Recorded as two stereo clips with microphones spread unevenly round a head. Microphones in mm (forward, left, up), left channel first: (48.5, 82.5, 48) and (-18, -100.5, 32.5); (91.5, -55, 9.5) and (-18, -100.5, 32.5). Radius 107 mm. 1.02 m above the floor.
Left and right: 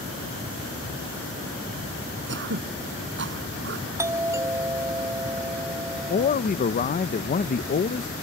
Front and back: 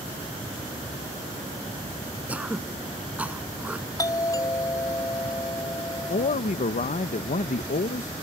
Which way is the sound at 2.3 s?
80° right.